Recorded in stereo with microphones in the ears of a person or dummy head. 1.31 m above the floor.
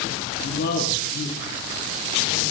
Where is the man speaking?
45° left (ahead or behind), 2 m; by 2.5 s 35° left (ahead or behind), 4 m.